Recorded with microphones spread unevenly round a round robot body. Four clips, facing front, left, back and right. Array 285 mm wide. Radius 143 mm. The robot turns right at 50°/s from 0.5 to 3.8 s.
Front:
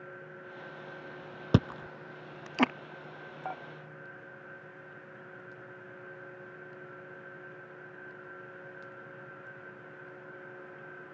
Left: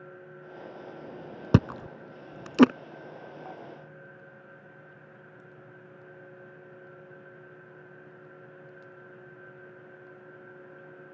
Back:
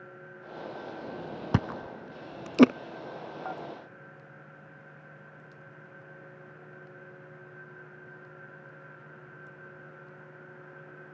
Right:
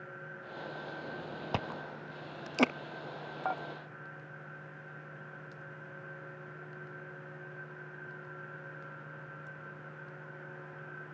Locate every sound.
1.5 s chewing: 80° left; by 2.7 s 135° left
3.5 s dishes clattering: 80° right; by 3.6 s 70° right